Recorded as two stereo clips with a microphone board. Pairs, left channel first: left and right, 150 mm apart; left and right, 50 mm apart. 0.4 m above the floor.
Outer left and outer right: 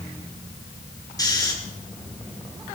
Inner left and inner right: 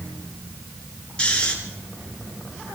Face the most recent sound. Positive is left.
turn(degrees=25)  # may be behind; listen again after turning